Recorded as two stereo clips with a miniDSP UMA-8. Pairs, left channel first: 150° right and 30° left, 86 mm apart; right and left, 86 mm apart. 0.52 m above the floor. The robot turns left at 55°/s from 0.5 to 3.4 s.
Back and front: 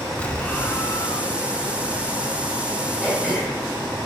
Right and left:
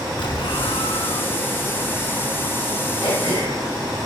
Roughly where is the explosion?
Right.